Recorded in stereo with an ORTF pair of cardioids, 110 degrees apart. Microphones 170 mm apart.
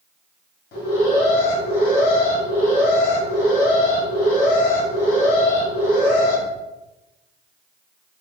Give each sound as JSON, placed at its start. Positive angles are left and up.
{"t": 0.7, "sound": "an alarm", "azimuth_deg": 60, "distance_m": 1.9}